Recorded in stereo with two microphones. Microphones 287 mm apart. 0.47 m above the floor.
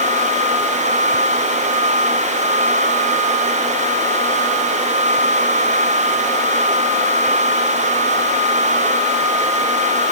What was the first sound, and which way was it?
Only background noise.